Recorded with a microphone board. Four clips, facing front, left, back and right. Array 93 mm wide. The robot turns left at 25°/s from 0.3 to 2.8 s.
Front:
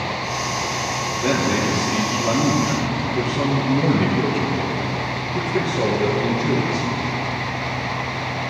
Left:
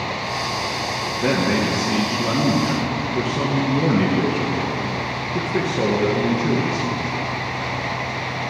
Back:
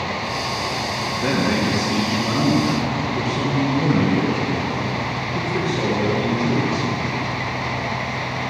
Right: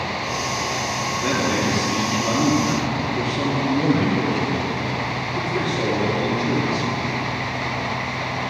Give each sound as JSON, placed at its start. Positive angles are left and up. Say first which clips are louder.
{"t": 1.2, "sound": "a man speaking", "louder": "left 3 dB, even", "azimuth_deg": 125, "distance_m": 2.5}